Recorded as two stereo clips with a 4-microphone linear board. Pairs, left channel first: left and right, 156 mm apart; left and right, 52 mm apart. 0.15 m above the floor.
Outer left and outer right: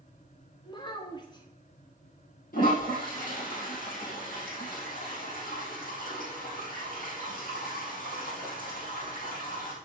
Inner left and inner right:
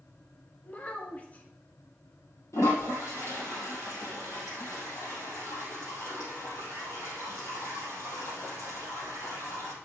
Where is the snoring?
No snoring in this recording.